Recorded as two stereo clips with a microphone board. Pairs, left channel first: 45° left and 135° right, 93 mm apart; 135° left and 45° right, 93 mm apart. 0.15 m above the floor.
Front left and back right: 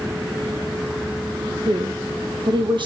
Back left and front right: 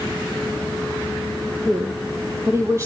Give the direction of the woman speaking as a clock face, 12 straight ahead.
4 o'clock.